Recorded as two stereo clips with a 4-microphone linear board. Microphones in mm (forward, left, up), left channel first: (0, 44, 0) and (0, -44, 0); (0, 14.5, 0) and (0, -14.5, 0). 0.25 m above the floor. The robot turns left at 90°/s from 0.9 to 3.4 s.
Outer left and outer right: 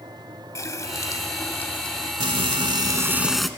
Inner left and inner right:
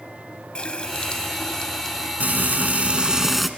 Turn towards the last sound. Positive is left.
turn(degrees=180)